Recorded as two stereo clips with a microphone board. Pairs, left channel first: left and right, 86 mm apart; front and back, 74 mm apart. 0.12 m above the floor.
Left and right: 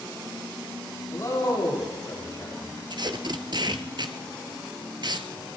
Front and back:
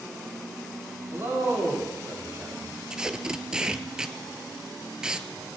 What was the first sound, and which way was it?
A man speaking, 135° left.